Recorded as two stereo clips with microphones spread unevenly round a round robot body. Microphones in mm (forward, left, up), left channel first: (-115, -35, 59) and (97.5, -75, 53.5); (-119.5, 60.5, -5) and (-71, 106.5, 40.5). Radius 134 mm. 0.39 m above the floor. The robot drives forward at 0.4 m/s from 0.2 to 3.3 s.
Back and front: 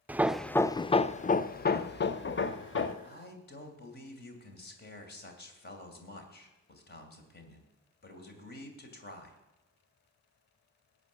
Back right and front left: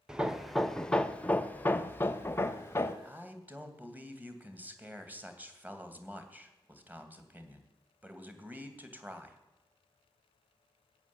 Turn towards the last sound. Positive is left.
turn(degrees=125)